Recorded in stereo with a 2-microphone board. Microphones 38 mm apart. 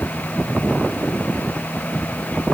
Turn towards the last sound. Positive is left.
No sound to turn to.